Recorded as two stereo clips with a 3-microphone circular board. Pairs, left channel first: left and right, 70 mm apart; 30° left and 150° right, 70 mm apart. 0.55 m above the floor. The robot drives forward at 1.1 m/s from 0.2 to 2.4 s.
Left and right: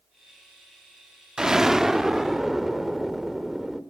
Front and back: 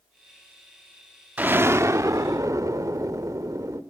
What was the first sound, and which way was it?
An explosion, 155° right.